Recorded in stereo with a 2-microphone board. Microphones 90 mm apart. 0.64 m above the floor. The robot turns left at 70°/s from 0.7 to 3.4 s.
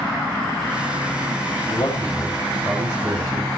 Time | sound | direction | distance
1.7 | a man speaking | 50° left (ahead or behind) | 5 m